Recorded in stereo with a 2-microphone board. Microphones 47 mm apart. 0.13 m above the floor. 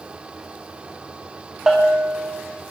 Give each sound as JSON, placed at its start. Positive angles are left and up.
{"t": 1.7, "sound": "a bell", "side_deg": -10, "distance_m": 5.0}